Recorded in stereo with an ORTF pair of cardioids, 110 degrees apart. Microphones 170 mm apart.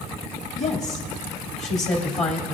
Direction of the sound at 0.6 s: 45° left.